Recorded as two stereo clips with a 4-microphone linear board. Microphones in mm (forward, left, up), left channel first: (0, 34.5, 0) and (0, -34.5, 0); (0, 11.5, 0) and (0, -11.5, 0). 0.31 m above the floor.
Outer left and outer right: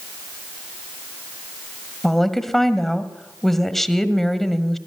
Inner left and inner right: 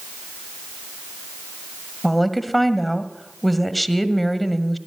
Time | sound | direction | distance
2.0 | a woman speaking | 5° left (ahead or behind) | 1.5 m